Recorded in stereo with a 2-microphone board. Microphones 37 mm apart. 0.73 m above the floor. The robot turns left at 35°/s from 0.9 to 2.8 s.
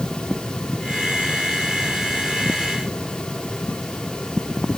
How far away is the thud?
I don't hear a thud.